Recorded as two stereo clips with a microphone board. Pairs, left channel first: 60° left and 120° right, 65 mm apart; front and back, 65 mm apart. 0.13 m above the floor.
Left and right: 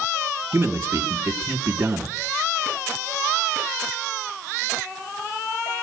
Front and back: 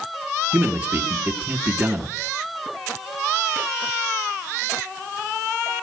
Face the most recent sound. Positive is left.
turn(degrees=-130)